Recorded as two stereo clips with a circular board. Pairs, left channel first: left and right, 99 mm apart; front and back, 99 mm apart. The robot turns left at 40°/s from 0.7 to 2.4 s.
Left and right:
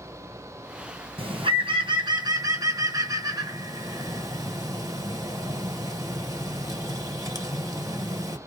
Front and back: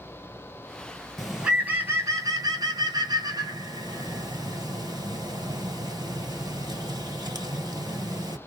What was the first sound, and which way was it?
A bird, 90° right.